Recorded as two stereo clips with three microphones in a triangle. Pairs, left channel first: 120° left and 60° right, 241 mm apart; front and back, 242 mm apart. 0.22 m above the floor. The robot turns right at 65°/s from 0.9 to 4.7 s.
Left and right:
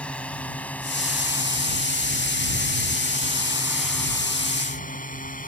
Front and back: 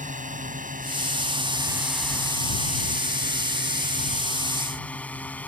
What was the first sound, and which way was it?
A drone, 160° right.